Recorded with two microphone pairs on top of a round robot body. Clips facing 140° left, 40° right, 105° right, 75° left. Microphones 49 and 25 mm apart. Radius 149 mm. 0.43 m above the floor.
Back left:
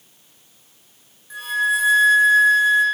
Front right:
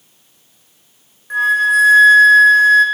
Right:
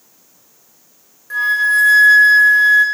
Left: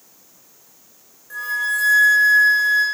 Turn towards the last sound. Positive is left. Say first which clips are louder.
# front right 8 dB, right 8 dB
turn(degrees=-75)